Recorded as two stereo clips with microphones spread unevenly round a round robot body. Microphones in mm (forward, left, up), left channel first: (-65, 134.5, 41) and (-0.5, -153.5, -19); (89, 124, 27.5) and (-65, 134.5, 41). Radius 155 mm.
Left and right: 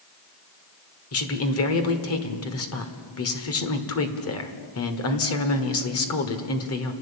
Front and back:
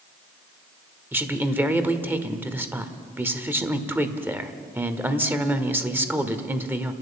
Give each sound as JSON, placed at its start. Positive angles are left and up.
{"t": 1.1, "sound": "a man speaking", "azimuth_deg": 100, "distance_m": 1.7}